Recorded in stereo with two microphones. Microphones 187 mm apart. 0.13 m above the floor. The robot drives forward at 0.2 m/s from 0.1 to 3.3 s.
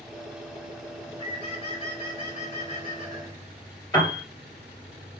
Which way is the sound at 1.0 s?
35° left (ahead or behind).